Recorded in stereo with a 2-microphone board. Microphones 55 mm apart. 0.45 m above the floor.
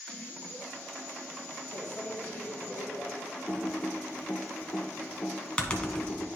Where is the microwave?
35° left (ahead or behind), 1.8 m.